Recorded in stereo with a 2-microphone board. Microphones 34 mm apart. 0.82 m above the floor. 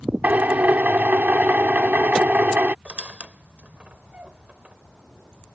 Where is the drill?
65° right (ahead or behind).